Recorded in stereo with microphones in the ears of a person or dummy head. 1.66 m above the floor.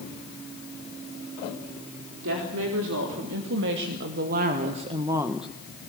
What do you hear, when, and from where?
2.2 s a woman speaking: 75° right (ahead or behind), 4 m; by 5.5 s 5° left (ahead or behind), 1.2 m